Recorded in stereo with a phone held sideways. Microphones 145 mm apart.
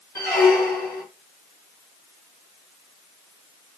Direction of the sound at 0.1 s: 20° left (ahead or behind).